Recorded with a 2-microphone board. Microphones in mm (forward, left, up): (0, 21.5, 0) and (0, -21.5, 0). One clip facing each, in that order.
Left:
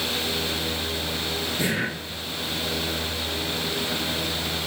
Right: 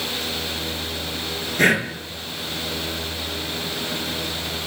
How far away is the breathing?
About 5.5 m.